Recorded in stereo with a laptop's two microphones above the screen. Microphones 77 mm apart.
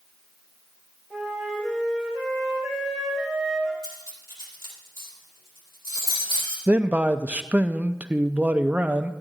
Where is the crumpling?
I don't hear crumpling.